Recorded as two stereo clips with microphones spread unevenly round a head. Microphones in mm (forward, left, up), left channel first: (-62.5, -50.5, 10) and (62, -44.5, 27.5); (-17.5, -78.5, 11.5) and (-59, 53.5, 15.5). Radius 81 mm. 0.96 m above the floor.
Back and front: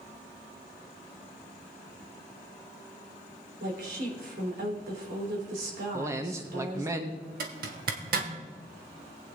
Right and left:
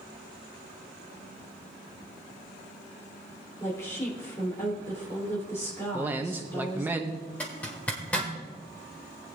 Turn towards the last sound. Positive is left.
turn(degrees=10)